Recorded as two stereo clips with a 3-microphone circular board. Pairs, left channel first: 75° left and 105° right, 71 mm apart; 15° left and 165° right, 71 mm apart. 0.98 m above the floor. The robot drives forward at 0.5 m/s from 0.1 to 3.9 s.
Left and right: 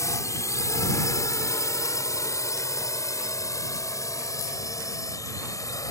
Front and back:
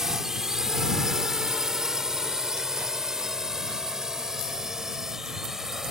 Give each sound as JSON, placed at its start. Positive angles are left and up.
{"t": 0.0, "sound": "a drone", "azimuth_deg": 110}